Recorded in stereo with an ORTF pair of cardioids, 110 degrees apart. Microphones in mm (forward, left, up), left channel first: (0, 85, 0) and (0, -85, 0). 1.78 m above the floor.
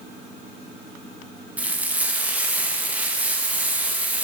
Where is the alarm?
No alarm in this recording.